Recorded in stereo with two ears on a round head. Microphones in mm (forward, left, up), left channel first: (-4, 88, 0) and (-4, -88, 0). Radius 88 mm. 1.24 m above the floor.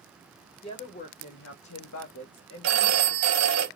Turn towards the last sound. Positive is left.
turn(degrees=-70)  # may be behind; listen again after turning